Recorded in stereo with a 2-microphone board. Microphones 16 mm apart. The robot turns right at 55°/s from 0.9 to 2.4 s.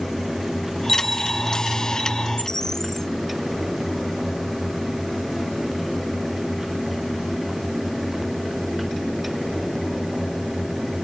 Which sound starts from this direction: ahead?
A bell, at 0.9 s.